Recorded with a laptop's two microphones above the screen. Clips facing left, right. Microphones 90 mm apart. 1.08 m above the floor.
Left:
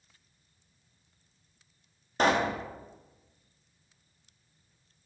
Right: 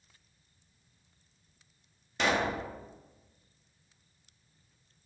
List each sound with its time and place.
2.2 s a pop: 40° left (ahead or behind), 0.6 m